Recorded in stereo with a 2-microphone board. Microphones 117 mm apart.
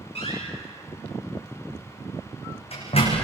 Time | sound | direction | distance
0.1 | a door slam | 55° left (ahead or behind) | 9.5 m